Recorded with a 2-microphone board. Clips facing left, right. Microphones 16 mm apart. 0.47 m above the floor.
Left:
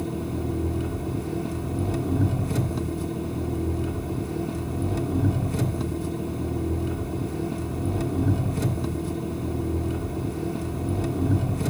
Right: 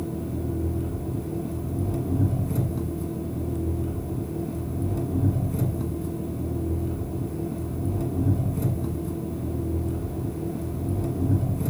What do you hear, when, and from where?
0.0 s an engine running: 55° left (ahead or behind), 1.2 m